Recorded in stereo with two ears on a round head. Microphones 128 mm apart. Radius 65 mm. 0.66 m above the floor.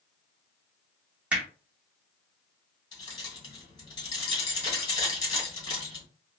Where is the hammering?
10° right (ahead or behind), 1.2 m.